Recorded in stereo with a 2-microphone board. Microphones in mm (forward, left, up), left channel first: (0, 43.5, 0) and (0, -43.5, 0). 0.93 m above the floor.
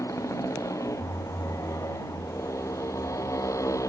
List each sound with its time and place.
0.0 s a motorcycle: 35° left (ahead or behind)